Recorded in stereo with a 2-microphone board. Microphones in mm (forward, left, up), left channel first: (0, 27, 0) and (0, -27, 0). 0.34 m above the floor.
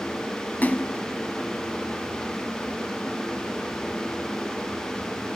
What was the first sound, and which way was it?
A splash, 35° left (ahead or behind).